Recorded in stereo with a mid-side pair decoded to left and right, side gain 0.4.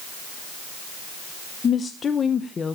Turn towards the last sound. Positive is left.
turn(degrees=45)